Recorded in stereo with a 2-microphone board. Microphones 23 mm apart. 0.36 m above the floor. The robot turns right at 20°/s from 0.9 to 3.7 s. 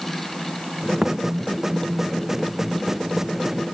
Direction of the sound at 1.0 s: 20° right (ahead or behind).